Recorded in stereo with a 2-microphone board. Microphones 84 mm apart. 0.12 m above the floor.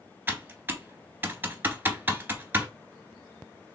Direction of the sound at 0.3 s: 25° right (ahead or behind).